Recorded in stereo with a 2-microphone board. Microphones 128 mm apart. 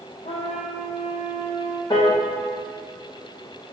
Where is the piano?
35° left (ahead or behind), 2.5 m.